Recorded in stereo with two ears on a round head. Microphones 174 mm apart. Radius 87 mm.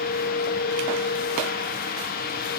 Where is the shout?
No shout in this recording.